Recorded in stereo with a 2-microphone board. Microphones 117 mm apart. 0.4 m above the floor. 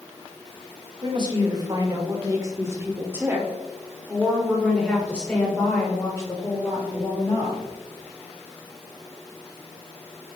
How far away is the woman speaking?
About 1.9 m.